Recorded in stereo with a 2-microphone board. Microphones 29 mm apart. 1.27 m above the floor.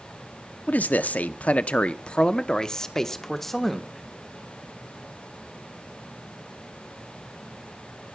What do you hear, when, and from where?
0.7 s a man speaking: 65° left (ahead or behind), 0.9 m; by 4.0 s centre (ahead or behind), 1.6 m